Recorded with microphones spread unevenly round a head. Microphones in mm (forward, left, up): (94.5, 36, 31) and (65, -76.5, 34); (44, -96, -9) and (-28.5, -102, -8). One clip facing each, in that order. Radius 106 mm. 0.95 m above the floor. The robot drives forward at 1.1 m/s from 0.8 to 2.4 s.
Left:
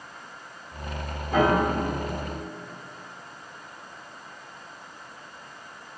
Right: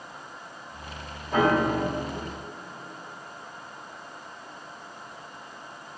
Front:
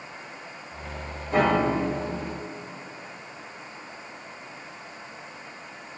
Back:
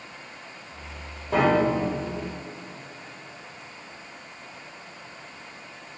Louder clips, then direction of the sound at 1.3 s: Left 1 dB, back 1 dB; 165° left.